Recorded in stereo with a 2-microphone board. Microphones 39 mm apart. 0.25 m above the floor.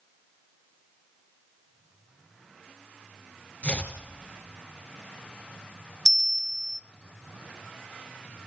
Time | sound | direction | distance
3.6 | chopping | 35° left (ahead or behind) | 3 m
6.0 | a bell | 5° right (ahead or behind) | 0.5 m